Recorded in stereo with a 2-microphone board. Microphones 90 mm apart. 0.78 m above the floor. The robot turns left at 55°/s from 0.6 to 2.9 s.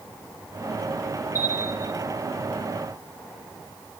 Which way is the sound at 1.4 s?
40° left.